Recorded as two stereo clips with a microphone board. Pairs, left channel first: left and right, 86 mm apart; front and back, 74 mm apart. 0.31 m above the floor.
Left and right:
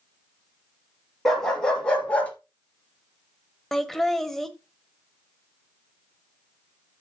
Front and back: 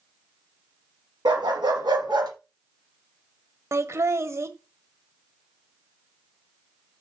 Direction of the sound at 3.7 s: 175° left.